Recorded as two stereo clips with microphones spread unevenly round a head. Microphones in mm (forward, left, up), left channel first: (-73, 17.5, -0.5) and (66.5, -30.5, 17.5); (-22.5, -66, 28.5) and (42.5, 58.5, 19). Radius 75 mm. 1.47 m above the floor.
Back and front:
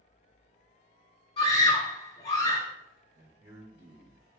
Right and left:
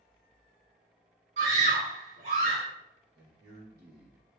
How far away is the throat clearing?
I don't hear throat clearing.